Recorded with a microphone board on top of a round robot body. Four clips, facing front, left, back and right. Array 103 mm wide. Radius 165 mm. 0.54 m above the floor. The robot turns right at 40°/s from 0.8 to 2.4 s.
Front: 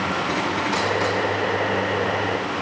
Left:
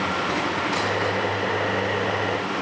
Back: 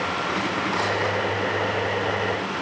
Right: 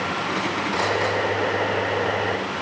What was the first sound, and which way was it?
Only background noise.